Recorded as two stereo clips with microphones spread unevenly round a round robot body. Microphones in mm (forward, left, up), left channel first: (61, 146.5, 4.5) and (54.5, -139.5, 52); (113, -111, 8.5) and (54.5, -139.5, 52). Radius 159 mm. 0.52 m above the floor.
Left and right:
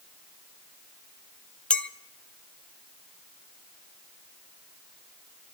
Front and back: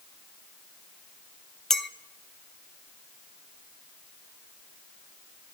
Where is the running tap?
I don't hear a running tap.